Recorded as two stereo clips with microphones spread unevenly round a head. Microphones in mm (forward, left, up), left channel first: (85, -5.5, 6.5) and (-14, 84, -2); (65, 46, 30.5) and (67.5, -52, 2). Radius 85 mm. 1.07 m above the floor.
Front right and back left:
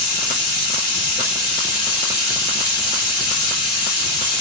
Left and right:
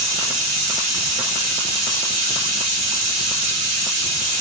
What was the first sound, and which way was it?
Running water, 135° right.